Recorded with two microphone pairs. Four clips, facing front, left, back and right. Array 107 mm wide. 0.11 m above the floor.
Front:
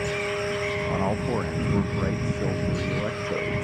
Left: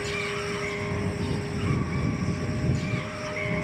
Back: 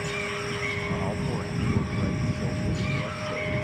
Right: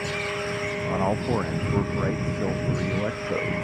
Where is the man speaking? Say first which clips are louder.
Right 6 dB, front 4 dB; 65° right.